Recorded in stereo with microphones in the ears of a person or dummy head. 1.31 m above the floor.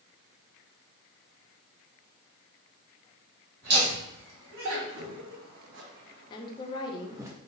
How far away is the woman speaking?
About 0.8 m.